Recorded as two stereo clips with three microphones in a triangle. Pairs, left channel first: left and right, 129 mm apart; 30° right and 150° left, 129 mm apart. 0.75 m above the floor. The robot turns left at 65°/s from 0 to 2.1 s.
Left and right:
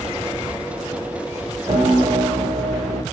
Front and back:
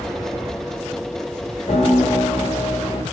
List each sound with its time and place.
1.7 s a piano: 35° right, 4.5 m; by 3.0 s 65° right, 4.5 m